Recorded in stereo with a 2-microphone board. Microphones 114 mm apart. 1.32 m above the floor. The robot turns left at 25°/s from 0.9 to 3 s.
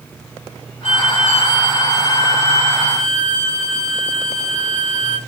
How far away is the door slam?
No door slam in this recording.